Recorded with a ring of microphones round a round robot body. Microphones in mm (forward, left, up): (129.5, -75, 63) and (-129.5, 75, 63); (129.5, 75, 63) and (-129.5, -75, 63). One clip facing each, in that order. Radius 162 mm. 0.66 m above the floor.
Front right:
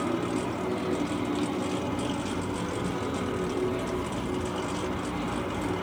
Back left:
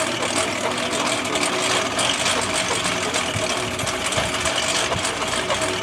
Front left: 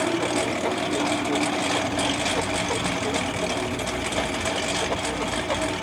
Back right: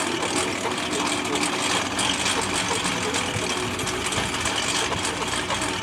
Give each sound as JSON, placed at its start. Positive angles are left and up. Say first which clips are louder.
{"t": 0.0, "sound": "a lawn mower", "louder": "back left 2 dB, front left 2 dB", "azimuth_deg": 145}